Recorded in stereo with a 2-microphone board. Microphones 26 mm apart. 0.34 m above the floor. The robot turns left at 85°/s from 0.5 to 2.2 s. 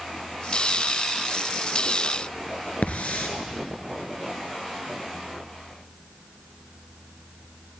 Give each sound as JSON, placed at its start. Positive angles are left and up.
{"t": 2.8, "sound": "a hiss", "side_deg": 80, "distance_m": 1.8}